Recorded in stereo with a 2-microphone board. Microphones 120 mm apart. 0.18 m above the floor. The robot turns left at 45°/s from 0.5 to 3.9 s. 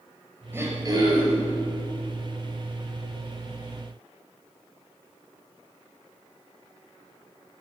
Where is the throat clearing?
20° right, 4.5 m; by 1.4 s 60° right, 4.5 m.